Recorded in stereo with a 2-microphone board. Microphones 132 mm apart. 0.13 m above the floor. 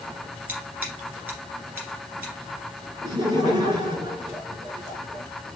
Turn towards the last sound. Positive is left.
turn(degrees=-35)  # may be behind; listen again after turning